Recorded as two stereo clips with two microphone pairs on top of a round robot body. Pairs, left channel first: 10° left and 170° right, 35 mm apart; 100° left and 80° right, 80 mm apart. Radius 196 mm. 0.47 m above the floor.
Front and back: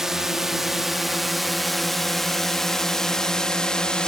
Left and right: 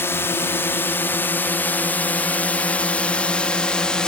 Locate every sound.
0.0 s a drone: 120° left; by 4.1 s 45° left